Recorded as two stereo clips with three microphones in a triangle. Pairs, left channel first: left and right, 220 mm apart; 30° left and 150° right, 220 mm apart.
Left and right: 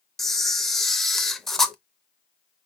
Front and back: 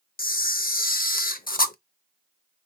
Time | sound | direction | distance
0.2 | a camera shutter | straight ahead | 0.6 m